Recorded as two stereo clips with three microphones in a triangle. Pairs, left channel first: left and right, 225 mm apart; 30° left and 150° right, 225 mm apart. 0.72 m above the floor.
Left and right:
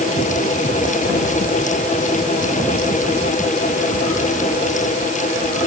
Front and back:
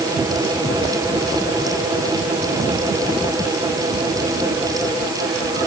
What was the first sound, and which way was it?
Only background noise.